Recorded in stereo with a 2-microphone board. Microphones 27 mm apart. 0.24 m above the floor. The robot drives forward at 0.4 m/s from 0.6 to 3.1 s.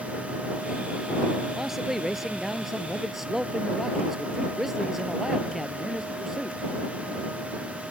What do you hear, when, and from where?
1.6 s a man speaking: 10° right (ahead or behind)